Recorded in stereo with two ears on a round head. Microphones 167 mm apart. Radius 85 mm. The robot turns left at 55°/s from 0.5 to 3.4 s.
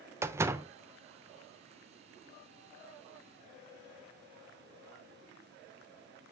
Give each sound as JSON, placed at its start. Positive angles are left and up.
{"t": 0.2, "sound": "a door slam", "side_deg": -15, "distance_m": 0.6}